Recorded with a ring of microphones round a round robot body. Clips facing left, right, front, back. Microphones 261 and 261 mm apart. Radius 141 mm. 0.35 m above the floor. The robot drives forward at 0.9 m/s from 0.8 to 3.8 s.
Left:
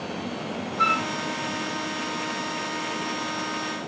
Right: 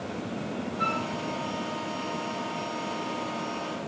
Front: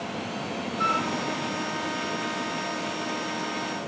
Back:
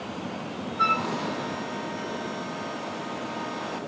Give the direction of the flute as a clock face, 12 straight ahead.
8 o'clock.